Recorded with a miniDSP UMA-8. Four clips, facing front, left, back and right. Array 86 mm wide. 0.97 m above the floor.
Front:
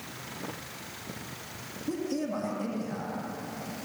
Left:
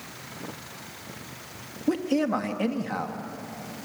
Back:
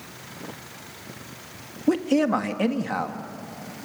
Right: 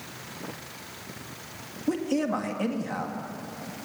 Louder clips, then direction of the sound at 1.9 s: Left 2 dB, back 11 dB; 170° left.